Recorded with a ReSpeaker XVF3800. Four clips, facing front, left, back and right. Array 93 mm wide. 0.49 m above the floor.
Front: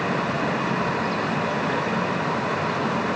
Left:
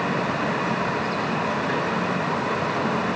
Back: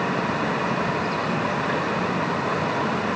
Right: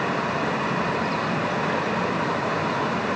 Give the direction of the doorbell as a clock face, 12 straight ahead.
I don't hear a doorbell.